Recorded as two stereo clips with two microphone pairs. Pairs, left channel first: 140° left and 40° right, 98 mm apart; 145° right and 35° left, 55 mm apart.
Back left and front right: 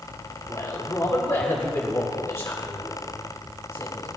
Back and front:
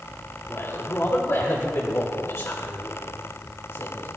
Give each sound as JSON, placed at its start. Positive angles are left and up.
{"t": 0.5, "sound": "a man speaking", "azimuth_deg": -160, "distance_m": 2.0}